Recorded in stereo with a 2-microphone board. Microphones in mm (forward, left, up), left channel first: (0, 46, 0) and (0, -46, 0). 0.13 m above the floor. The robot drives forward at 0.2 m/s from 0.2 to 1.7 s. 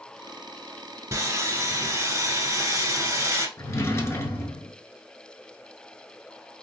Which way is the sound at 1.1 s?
35° right (ahead or behind).